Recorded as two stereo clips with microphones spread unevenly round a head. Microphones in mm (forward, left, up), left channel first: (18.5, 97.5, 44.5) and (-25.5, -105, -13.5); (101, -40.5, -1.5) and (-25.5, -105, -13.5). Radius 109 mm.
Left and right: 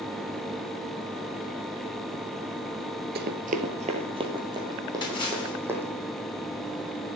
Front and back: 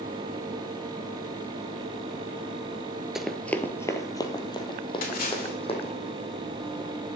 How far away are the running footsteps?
About 1.3 m.